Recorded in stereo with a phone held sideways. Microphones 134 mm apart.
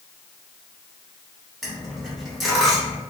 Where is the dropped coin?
Centre (ahead or behind), 1.6 m.